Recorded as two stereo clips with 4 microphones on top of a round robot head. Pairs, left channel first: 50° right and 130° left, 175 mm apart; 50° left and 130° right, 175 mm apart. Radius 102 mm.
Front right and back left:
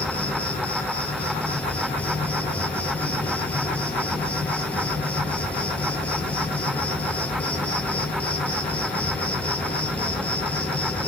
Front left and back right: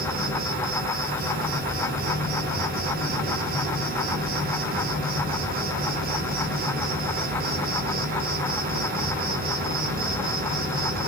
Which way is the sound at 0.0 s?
130° right.